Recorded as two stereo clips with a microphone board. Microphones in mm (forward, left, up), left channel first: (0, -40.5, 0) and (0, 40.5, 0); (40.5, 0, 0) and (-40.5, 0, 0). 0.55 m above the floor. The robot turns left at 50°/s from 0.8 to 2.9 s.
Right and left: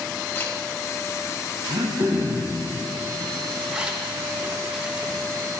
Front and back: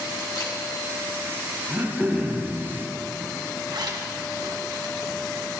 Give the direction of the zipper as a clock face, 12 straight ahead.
6 o'clock.